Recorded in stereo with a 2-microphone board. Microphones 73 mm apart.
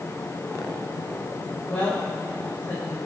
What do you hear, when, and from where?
1.7 s a woman speaking: 30° left (ahead or behind), 6 m